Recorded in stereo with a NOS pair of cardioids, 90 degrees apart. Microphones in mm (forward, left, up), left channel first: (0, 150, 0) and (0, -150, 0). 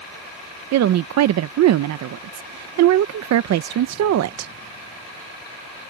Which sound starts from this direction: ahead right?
A woman speaking, at 0.7 s.